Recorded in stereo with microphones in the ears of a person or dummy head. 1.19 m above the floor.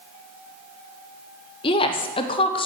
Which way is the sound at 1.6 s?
30° left (ahead or behind).